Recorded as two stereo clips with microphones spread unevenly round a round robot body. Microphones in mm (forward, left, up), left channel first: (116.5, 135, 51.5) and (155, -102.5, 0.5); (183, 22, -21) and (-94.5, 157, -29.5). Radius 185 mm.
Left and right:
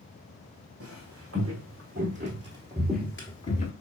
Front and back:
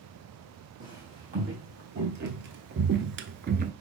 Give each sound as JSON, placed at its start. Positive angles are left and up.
{"t": 0.8, "sound": "footsteps", "azimuth_deg": -140, "distance_m": 1.3}